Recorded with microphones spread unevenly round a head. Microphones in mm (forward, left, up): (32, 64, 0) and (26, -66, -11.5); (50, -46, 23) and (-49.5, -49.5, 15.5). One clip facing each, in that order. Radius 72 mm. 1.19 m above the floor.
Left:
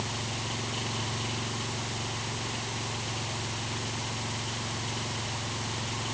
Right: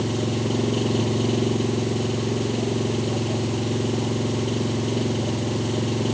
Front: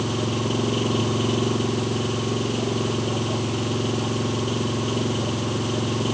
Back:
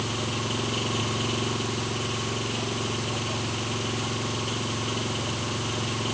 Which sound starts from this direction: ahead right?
An engine running, at 0.0 s.